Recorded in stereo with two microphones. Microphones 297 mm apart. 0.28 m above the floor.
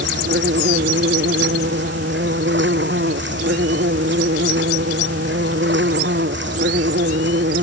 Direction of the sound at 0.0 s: 40° right (ahead or behind).